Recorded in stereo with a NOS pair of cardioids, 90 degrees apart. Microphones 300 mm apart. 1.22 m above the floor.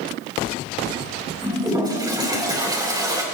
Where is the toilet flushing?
15° right, 4 m.